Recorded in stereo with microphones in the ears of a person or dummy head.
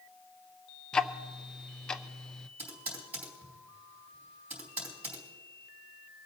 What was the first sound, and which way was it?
Ticking, 10° left (ahead or behind).